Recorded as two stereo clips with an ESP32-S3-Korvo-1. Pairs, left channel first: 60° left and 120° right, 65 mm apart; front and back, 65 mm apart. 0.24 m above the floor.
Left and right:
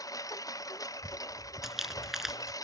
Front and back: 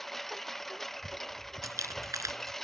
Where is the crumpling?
155° left.